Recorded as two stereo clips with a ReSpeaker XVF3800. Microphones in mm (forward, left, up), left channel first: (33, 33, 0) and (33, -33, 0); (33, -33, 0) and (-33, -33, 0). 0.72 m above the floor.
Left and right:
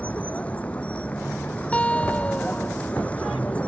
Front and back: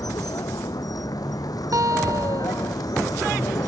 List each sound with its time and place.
0.0 s a vehicle: 20° left
1.7 s a guitar: 160° left